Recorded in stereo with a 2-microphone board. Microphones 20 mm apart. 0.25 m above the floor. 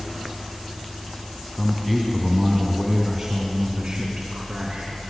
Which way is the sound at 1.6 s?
Centre (ahead or behind).